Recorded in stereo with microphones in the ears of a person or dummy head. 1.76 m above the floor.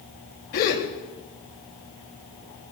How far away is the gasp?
About 1.8 m.